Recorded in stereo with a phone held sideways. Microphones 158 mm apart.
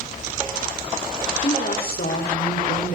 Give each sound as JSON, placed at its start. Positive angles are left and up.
{"t": 1.4, "sound": "a woman speaking", "side_deg": 70, "distance_m": 6.0}